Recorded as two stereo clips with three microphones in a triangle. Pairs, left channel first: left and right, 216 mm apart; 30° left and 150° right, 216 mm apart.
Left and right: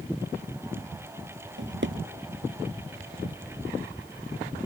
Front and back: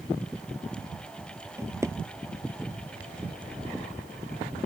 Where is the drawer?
75° right.